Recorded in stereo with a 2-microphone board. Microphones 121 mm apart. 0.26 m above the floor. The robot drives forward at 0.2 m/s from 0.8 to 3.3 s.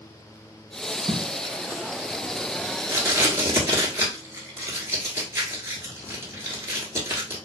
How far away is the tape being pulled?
About 0.5 m.